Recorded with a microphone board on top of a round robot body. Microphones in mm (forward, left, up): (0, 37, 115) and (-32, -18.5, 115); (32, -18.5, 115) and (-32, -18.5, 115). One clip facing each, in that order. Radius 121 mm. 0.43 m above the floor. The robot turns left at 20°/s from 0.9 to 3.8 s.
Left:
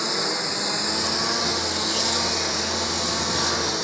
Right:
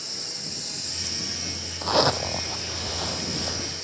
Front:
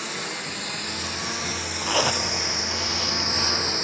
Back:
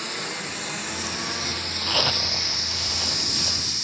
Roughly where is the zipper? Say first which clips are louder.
Right 3 dB, front 3 dB; right.